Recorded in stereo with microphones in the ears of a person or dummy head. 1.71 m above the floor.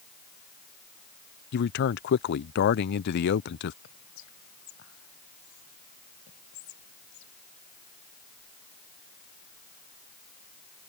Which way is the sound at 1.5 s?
60° left (ahead or behind).